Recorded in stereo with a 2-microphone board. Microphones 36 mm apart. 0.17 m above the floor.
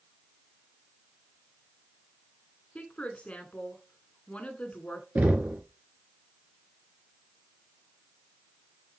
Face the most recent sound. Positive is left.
turn(degrees=-45)  # may be behind; listen again after turning